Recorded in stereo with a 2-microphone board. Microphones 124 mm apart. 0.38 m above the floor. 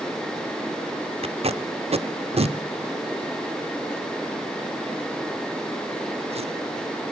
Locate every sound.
1.2 s tape being pulled: 55° right (ahead or behind), 0.8 m